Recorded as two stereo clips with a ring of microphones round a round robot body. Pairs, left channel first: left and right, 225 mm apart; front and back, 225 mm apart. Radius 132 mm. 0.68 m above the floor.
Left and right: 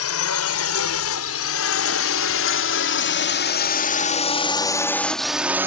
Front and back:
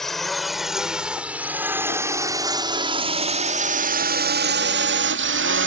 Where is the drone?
90° left; by 5.7 s 170° right.